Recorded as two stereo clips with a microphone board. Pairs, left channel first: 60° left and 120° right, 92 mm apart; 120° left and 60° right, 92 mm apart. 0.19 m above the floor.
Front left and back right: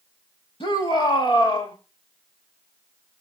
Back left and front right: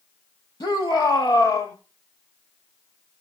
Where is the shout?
70° left, 5 m; by 1.8 s 60° left, 5 m.